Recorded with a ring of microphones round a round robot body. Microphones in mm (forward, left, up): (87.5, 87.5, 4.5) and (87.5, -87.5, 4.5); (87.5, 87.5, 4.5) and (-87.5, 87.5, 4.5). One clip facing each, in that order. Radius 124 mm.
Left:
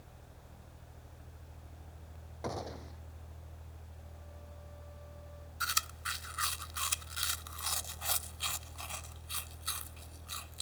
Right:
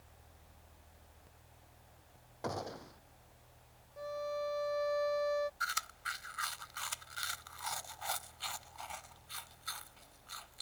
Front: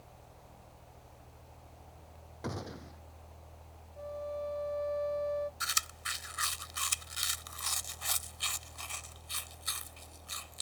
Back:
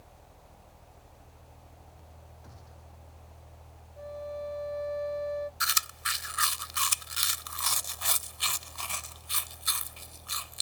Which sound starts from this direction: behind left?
Chewing, at 5.6 s.